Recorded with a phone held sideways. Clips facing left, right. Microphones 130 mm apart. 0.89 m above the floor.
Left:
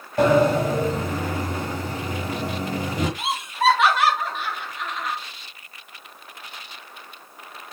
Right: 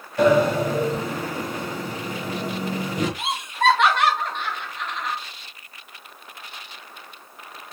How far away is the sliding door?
About 1.0 m.